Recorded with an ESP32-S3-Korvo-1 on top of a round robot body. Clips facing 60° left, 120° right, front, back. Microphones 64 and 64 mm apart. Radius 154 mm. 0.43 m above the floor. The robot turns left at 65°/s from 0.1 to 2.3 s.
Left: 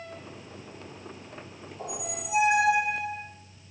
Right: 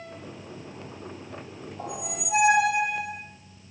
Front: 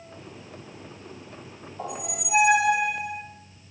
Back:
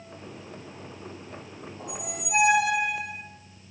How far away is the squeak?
About 1.1 m.